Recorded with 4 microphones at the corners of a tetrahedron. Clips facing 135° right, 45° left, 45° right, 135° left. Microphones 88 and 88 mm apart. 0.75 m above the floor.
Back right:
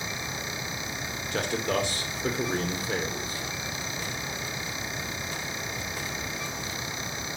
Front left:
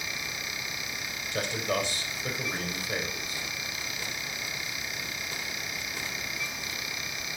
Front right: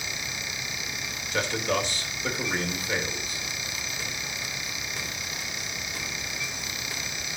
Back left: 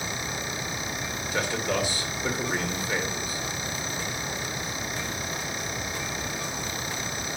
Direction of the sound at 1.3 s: 145° right.